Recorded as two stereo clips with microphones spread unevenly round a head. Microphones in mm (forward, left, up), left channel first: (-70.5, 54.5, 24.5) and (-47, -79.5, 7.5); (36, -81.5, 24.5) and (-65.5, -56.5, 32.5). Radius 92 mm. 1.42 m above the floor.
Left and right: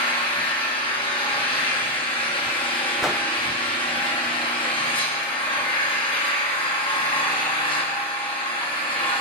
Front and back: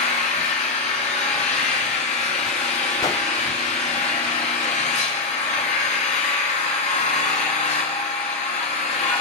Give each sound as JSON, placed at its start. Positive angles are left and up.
{"t": 0.0, "sound": "an engine running", "azimuth_deg": 35, "distance_m": 1.8}
{"t": 3.0, "sound": "a whoosh", "azimuth_deg": 20, "distance_m": 0.5}